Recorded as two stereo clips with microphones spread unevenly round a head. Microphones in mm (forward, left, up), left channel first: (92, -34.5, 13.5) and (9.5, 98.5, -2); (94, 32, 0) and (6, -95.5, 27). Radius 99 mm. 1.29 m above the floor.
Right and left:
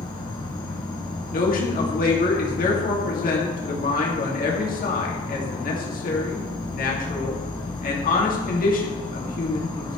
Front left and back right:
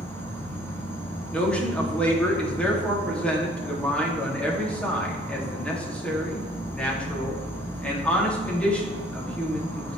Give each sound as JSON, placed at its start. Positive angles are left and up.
{"t": 0.0, "sound": "an insect", "azimuth_deg": -25, "distance_m": 1.5}
{"t": 1.3, "sound": "a man speaking", "azimuth_deg": -30, "distance_m": 2.0}